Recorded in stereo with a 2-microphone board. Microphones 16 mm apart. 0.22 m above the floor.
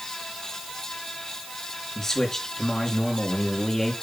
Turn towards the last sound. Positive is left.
turn(degrees=35)  # may be behind; listen again after turning